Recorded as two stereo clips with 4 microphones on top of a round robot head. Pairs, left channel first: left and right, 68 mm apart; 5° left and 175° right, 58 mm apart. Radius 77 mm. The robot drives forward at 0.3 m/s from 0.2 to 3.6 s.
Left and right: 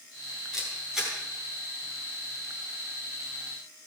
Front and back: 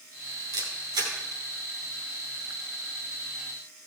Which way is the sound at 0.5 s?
170° right.